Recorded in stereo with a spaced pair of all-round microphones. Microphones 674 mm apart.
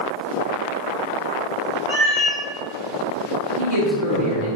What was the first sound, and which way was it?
A cat meowing, 60° left (ahead or behind).